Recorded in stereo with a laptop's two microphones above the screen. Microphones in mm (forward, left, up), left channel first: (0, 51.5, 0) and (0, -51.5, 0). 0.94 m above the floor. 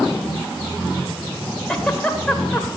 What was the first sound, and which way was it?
A giggle, 10° left (ahead or behind).